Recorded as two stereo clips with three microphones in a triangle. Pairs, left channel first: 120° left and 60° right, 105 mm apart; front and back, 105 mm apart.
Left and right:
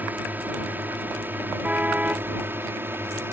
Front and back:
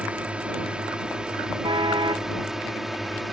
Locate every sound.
0.0 s a drone: 115° right; by 3.3 s 90° right
1.6 s a car horn: 135° right